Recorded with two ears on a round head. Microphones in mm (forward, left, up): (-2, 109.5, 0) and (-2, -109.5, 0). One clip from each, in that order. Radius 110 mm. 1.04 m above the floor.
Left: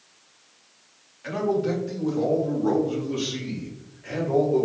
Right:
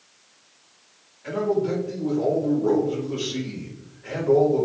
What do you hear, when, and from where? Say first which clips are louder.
1.2 s a man speaking: right 1 dB; 70° left (ahead or behind), 1.6 m; by 4.7 s 5° left (ahead or behind), 2.5 m